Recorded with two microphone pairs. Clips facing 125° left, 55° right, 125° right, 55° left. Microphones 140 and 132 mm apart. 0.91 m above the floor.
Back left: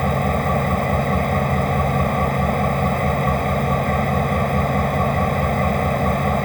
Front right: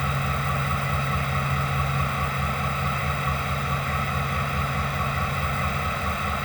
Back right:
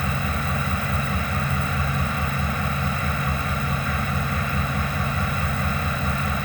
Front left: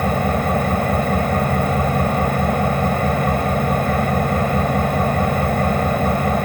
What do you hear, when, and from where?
0.0 s an engine running: 85° left